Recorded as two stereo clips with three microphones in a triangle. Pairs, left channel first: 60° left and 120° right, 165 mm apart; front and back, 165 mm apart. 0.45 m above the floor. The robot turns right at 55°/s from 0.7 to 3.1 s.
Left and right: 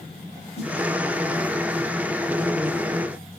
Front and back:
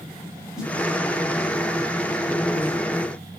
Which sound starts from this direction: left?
A snare drum, at 0.6 s.